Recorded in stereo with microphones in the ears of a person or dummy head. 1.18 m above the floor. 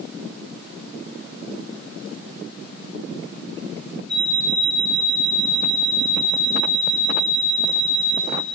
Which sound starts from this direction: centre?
An alarm clock, at 4.1 s.